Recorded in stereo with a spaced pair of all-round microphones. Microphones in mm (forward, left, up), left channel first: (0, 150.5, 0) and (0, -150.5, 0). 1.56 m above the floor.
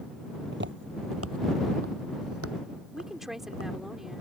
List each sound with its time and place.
0.5 s footsteps: 35° right (ahead or behind); by 3.7 s 50° right (ahead or behind)
2.9 s a woman speaking: centre (ahead or behind)